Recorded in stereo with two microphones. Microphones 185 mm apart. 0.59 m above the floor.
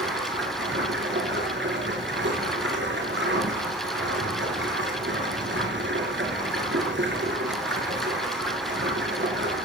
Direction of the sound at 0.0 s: 85° right.